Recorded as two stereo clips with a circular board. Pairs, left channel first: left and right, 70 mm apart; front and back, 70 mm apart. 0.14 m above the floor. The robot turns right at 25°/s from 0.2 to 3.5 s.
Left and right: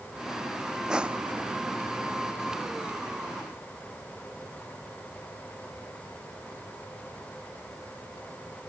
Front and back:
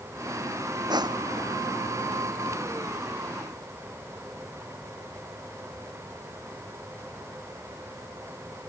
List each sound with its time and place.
0.9 s crushing: 170° right; by 1.5 s 155° right